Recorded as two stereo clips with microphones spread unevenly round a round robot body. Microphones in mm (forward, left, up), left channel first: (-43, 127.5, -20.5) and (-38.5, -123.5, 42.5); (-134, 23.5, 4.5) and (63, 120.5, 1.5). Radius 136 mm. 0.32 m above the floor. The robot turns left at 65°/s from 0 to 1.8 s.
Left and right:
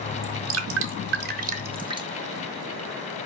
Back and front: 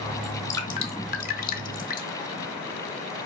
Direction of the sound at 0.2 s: 65° right.